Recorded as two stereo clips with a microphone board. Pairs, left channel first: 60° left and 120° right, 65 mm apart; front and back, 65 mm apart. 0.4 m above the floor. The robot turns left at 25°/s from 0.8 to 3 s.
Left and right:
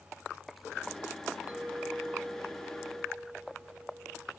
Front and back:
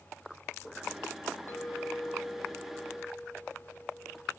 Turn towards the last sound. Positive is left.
turn(degrees=-90)